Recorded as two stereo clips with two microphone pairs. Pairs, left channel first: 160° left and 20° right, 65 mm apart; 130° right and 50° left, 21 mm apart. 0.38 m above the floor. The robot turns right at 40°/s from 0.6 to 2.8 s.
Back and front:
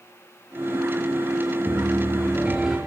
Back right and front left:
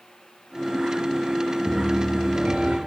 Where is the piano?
20° left, 5.5 m; by 2.8 s 65° left, 5.5 m.